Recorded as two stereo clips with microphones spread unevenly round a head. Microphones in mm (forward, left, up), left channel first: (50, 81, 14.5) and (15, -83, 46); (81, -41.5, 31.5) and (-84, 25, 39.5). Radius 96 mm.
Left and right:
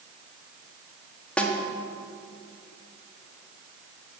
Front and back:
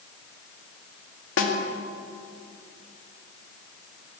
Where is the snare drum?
5° right, 2 m.